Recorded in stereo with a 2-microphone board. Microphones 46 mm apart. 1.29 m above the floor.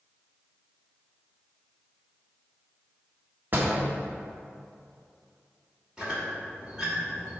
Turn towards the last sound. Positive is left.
turn(degrees=-15)  # may be behind; listen again after turning